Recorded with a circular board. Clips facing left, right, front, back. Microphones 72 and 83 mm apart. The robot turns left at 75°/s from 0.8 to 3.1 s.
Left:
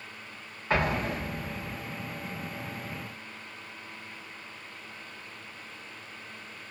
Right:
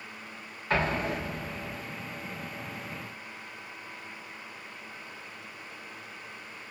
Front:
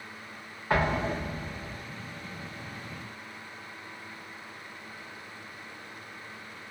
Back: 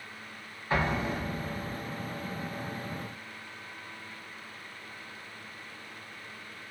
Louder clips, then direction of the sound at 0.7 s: Even, front 2 dB; 15° left.